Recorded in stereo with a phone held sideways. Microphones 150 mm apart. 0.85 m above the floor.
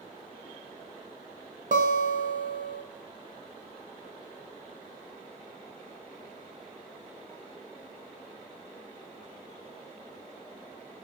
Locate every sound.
1.7 s a guitar: 60° right (ahead or behind), 0.8 m